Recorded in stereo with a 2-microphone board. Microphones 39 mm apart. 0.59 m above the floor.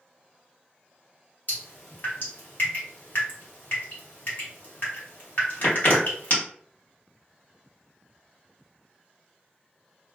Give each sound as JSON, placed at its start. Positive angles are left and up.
{"t": 1.5, "sound": "dripping", "side_deg": 50, "distance_m": 1.5}